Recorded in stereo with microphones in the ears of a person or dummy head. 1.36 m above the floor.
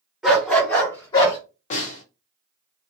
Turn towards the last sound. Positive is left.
turn(degrees=40)  # may be behind; listen again after turning